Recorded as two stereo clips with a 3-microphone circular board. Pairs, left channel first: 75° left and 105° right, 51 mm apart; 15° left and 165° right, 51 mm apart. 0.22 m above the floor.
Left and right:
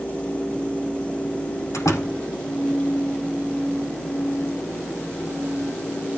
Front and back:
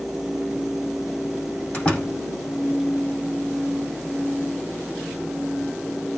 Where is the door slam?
80° left, 8 m.